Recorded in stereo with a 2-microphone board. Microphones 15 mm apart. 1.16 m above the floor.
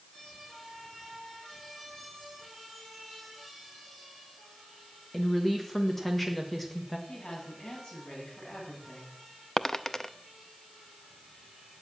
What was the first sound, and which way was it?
A woman speaking, 10° left (ahead or behind).